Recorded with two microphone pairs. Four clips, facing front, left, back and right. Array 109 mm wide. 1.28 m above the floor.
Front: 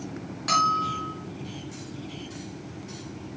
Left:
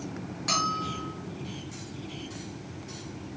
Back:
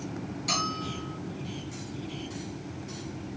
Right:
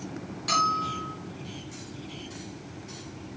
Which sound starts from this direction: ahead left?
A bell, at 0.5 s.